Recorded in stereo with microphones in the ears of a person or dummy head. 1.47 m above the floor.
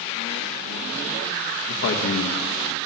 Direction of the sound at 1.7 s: 65° left (ahead or behind).